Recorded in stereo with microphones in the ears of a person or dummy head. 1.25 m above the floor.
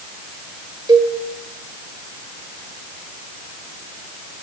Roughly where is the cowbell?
Right.